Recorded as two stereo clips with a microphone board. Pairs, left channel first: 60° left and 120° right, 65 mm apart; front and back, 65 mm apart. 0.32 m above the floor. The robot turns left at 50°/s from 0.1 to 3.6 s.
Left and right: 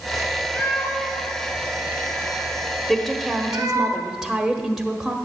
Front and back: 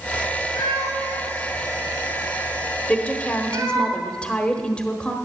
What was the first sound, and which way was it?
A cat meowing, 10° right.